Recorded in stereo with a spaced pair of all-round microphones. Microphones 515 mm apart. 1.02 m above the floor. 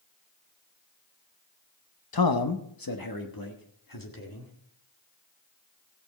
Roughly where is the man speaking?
Left.